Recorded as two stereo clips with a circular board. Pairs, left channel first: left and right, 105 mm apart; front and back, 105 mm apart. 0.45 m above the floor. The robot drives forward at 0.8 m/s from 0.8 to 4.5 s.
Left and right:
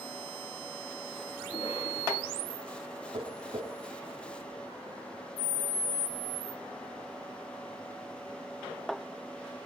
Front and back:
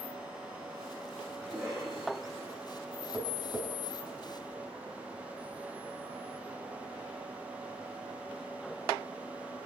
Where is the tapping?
105° right, 7 m.